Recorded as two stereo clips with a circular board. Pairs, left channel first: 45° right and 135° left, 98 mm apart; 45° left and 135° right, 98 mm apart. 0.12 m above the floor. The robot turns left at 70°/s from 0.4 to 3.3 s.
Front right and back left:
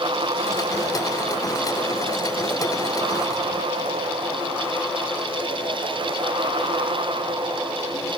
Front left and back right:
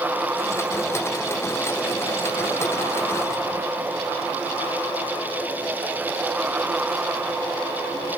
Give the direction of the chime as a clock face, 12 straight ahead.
I don't hear a chime.